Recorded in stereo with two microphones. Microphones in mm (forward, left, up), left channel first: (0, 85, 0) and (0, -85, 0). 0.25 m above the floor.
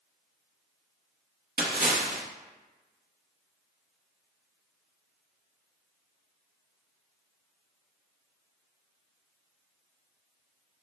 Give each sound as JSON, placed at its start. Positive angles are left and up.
{"t": 1.6, "sound": "a splash", "side_deg": -60, "distance_m": 0.7}